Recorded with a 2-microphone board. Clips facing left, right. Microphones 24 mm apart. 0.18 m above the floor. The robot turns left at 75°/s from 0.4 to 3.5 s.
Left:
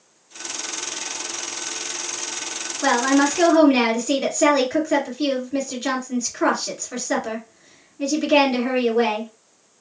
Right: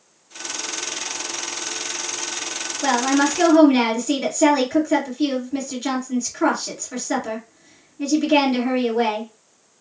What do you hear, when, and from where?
2.8 s a woman speaking: 55° left, 1.7 m; by 9.3 s 5° left, 1.7 m